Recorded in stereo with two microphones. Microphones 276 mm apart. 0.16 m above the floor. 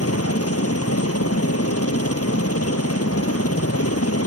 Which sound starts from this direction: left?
A helicopter, at 0.0 s.